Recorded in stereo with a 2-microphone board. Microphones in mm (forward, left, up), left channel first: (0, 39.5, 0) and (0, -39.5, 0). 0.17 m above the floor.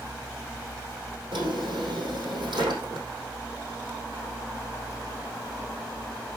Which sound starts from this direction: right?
A drawer, at 1.3 s.